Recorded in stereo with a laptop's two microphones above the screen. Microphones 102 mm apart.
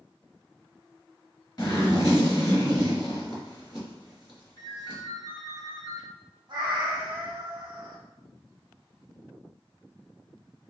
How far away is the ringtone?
About 1.4 m.